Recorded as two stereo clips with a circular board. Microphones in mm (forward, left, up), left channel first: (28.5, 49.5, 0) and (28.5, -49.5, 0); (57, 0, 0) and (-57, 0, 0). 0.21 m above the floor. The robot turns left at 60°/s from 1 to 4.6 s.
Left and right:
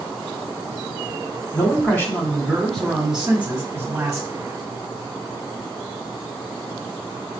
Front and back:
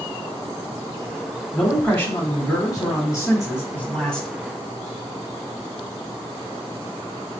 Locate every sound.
1.5 s a man speaking: 80° left, 1.2 m; by 4.3 s 85° right, 1.2 m